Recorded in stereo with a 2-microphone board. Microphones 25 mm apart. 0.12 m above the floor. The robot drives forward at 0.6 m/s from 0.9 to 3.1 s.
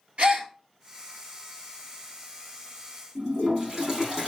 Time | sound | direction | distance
0.2 | a gasp | 60° right (ahead or behind) | 1.2 m
3.1 | a toilet flushing | 20° right (ahead or behind) | 2.5 m